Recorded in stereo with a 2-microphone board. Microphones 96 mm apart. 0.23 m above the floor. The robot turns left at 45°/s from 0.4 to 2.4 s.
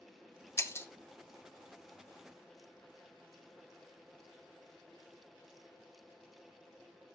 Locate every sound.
0.6 s breaking glass: 30° left (ahead or behind), 0.6 m; by 0.9 s 25° left (ahead or behind), 0.6 m